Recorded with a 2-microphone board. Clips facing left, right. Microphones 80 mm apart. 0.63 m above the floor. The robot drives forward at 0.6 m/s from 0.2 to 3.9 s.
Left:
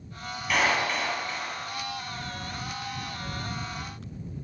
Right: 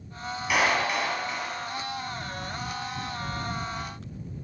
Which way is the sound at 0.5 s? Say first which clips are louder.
Right 1 dB; 10° right (ahead or behind).